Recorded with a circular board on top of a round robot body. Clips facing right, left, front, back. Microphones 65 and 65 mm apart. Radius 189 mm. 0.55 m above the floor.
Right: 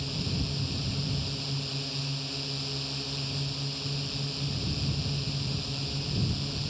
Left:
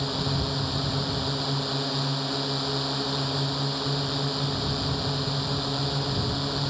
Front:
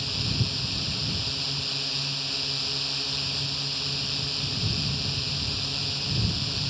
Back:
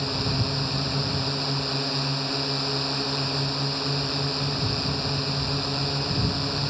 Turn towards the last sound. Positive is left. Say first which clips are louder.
# left 6 dB, back 5 dB
turn(degrees=125)